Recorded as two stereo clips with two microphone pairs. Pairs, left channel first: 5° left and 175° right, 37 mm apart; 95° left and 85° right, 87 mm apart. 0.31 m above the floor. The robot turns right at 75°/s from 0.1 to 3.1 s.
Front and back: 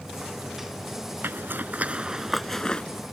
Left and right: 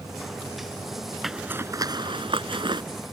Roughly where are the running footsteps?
I don't hear running footsteps.